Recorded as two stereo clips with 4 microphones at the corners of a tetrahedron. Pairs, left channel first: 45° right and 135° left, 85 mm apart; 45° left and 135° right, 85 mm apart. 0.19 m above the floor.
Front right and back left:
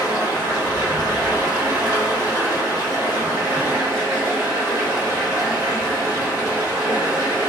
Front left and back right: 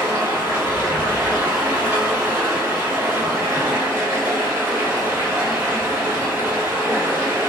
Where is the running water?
170° left, 1.8 m.